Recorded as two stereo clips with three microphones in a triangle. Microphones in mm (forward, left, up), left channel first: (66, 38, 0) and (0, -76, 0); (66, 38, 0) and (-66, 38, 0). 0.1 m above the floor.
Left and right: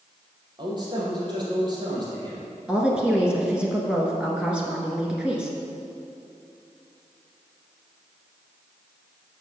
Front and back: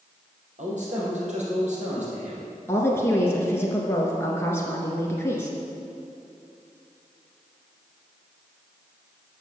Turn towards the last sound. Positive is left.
turn(degrees=-45)